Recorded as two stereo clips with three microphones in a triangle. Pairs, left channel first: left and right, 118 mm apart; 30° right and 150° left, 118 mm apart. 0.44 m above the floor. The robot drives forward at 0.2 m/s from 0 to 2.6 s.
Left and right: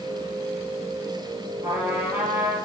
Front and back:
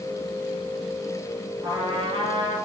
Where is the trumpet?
160° right, 1.6 m; by 2.6 s 165° right, 1.8 m.